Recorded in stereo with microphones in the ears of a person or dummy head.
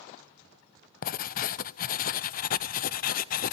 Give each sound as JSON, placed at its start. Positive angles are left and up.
{"t": 1.0, "sound": "writing", "side_deg": 45, "distance_m": 0.6}